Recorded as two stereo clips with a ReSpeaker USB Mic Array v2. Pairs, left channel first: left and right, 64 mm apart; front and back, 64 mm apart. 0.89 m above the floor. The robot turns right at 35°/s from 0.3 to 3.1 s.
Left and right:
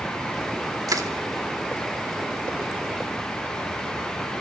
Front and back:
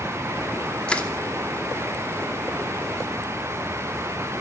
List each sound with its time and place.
0.9 s crushing: 75° right, 2.5 m; by 1.1 s 70° right, 2.5 m